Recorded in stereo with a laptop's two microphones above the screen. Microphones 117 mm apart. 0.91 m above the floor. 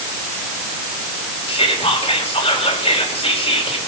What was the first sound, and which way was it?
Whispering, 60° left (ahead or behind).